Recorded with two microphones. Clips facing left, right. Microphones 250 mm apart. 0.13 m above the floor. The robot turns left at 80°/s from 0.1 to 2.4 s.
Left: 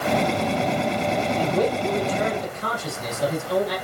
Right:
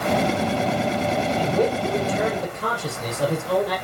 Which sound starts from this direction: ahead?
A man speaking, at 1.4 s.